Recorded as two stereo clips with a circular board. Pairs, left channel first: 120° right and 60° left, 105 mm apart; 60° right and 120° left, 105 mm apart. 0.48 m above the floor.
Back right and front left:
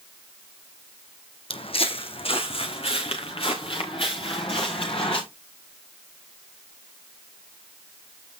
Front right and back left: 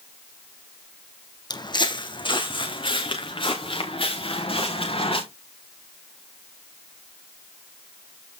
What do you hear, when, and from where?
1.5 s footsteps: 105° right, 1.1 m; by 5.2 s 90° right, 4 m